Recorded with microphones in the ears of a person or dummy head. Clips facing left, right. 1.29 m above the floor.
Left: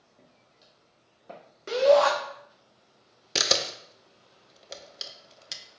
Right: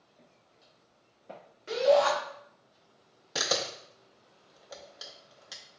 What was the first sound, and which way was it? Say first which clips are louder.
Footsteps: left 2 dB; 25° left (ahead or behind).